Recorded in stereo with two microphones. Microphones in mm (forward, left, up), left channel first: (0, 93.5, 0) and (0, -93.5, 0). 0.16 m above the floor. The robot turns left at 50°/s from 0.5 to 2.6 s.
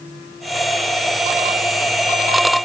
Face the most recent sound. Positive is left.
No sound to turn to.